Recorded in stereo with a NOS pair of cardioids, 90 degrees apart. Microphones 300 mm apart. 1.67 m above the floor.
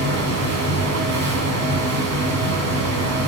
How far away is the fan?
About 2.5 m.